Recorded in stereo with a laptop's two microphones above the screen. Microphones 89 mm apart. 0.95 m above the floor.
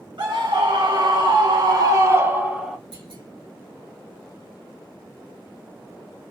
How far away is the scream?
About 1.6 m.